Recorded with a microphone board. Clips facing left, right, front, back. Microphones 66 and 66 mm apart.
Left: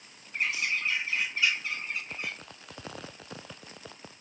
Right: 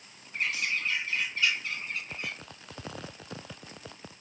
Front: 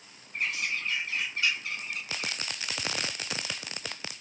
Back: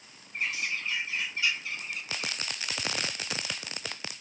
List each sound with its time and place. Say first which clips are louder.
0.3 s a bird: left 1 dB, front 1 dB; 15° left, 1.3 m